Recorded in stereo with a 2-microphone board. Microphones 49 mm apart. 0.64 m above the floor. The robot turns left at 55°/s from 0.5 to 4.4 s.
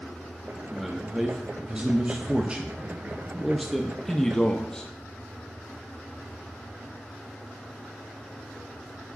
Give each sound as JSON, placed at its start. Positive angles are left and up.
{"t": 0.7, "sound": "a man speaking", "side_deg": -5, "distance_m": 0.6}